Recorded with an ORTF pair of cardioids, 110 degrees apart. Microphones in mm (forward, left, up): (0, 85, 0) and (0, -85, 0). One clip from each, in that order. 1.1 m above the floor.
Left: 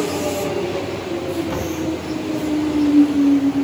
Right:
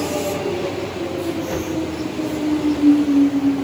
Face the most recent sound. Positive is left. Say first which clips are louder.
# even
turn(degrees=10)